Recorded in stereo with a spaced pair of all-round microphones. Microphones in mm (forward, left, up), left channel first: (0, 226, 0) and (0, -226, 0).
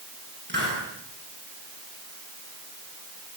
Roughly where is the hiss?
Right.